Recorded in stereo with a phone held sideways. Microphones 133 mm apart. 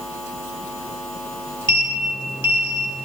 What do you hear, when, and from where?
1.7 s a sliding door: 35° left (ahead or behind), 2.5 m